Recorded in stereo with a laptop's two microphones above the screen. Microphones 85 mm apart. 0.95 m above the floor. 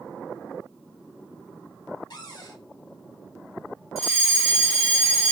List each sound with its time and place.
2.1 s a cupboard door: 50° left (ahead or behind), 1.1 m
4.0 s a fire alarm: 5° right (ahead or behind), 1.7 m